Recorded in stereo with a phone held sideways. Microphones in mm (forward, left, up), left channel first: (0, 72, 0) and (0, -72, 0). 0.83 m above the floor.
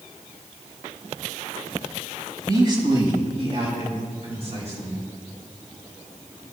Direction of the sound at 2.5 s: 30° right (ahead or behind).